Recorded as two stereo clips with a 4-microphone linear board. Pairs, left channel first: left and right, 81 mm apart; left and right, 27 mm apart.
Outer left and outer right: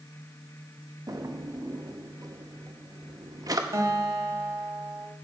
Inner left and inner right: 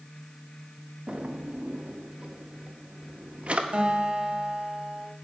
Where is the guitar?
40° right (ahead or behind), 1.4 m.